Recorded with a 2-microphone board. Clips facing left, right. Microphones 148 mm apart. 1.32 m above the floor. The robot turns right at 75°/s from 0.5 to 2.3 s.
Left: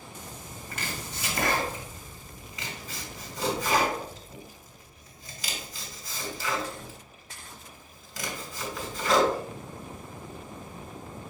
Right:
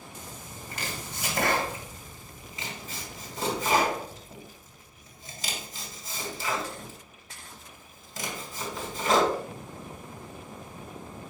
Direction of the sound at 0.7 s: 30° right (ahead or behind).